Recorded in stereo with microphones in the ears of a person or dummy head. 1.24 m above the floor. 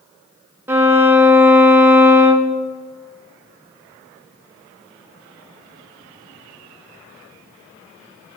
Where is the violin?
15° right (ahead or behind), 0.6 m.